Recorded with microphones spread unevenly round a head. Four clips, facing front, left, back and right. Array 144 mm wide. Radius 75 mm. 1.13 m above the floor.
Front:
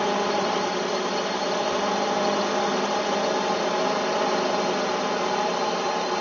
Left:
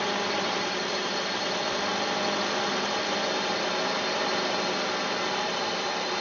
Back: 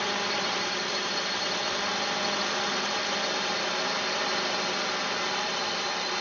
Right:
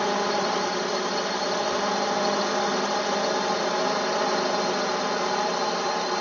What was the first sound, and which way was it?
A drone, 30° right.